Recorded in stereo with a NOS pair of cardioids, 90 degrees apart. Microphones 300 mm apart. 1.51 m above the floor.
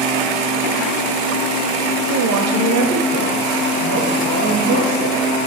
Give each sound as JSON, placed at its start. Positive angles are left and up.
{"t": 2.1, "sound": "a woman speaking", "azimuth_deg": -60, "distance_m": 0.9}